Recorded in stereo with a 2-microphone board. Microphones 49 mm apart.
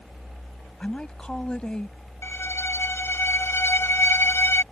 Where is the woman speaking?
20° left (ahead or behind).